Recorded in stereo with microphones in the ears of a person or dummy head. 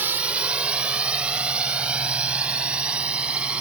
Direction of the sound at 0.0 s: 10° right (ahead or behind).